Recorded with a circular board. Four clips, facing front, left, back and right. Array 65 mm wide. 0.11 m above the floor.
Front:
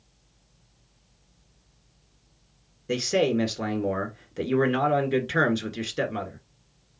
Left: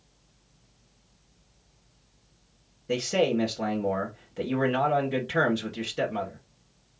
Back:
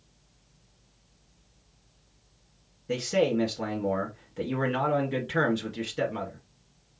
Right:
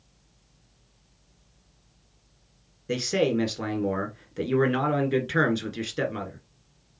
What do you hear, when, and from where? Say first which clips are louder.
2.9 s a man speaking: even, front 2 dB; 35° right, 1.4 m